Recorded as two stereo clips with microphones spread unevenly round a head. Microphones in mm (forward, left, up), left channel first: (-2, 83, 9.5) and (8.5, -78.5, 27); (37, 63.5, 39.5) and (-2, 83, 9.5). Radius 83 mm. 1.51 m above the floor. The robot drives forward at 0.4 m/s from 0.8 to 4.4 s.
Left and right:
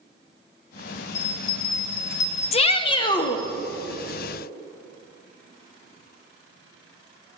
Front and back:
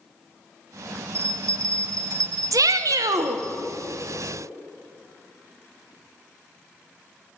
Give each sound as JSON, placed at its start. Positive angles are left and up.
{"t": 1.1, "sound": "a bell", "azimuth_deg": 120, "distance_m": 0.6}
{"t": 2.5, "sound": "a shout", "azimuth_deg": 145, "distance_m": 0.5}